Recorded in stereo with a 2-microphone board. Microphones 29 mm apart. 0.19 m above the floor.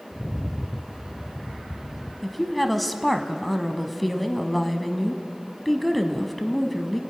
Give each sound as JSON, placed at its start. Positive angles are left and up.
{"t": 0.1, "sound": "a rattle", "side_deg": -10, "distance_m": 0.6}
{"t": 2.2, "sound": "a woman speaking", "side_deg": 5, "distance_m": 1.0}